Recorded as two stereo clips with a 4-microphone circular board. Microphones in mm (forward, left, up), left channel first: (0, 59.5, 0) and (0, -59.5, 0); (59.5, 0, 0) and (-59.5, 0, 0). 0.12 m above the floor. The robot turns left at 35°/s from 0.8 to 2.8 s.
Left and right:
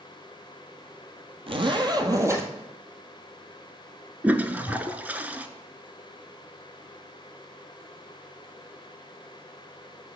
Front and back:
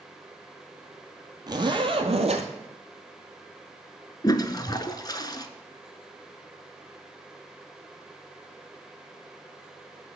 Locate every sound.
1.5 s a zipper: 125° right, 1.0 m; by 2.5 s 160° right, 1.0 m
4.2 s a toilet flushing: 25° right, 0.5 m